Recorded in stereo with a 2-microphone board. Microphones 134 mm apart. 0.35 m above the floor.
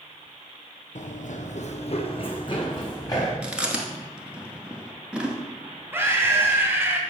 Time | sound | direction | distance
0.9 | running footsteps | 65° left (ahead or behind) | 0.8 m
3.4 | chewing | 10° right (ahead or behind) | 1.1 m
5.9 | a scream | 10° right (ahead or behind) | 1.7 m